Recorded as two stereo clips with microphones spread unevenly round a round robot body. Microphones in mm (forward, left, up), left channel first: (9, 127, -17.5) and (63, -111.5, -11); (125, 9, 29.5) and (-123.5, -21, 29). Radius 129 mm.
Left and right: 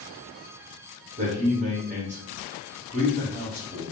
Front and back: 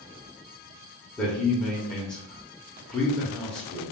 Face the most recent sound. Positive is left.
turn(degrees=-75)